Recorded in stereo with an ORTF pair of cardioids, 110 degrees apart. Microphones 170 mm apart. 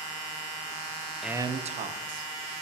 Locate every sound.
1.2 s a man speaking: straight ahead, 0.6 m; by 2.3 s 60° right, 1.6 m